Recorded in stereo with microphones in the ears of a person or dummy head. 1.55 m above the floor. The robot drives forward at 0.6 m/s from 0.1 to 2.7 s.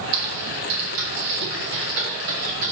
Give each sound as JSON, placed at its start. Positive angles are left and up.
{"t": 0.1, "sound": "typing on a keyboard", "side_deg": -60, "distance_m": 1.4}